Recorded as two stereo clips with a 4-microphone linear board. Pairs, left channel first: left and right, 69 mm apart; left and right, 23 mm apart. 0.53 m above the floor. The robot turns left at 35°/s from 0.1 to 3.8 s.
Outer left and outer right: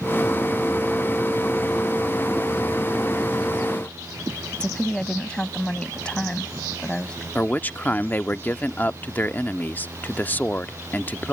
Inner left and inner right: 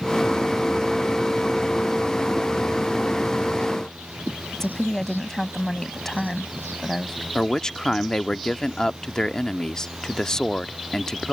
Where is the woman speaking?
15° left (ahead or behind).